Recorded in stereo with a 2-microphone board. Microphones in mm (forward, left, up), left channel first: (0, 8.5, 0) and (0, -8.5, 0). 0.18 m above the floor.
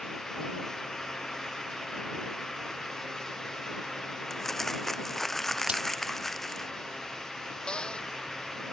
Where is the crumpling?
10° left (ahead or behind).